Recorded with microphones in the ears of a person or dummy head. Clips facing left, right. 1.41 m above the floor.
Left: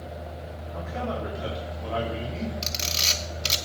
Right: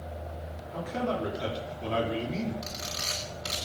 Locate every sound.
0.7 s a man speaking: 45° right (ahead or behind), 4 m
2.6 s a camera shutter: 40° left (ahead or behind), 2.0 m